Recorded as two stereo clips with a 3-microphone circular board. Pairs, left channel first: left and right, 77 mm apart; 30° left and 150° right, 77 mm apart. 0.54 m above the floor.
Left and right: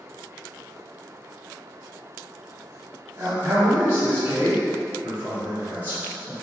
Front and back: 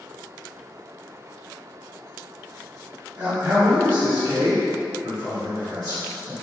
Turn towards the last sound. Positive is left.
turn(degrees=-160)